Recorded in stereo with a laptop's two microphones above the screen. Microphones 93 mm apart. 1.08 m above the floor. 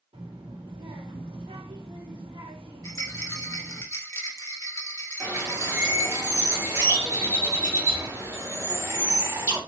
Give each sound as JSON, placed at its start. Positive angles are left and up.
{"t": 0.1, "sound": "a child speaking", "side_deg": -75, "distance_m": 1.5}
{"t": 2.8, "sound": "a rattle", "side_deg": 30, "distance_m": 1.2}
{"t": 5.2, "sound": "a bird", "side_deg": -30, "distance_m": 1.6}